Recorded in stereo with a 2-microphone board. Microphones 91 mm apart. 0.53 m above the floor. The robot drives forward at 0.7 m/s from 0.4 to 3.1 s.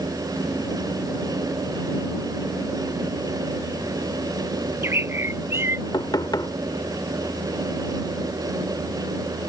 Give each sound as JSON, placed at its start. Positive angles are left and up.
{"t": 4.6, "sound": "a bird", "side_deg": -30}
{"t": 5.9, "sound": "knocking", "side_deg": 55}